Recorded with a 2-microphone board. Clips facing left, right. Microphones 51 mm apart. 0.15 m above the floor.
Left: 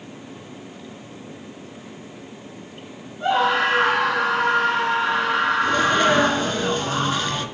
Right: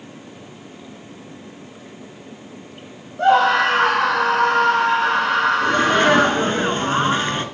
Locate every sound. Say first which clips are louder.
3.2 s a scream: right 5 dB; 75° right (ahead or behind), 6.5 m
5.6 s a sneeze: right 2 dB; 30° right (ahead or behind), 2 m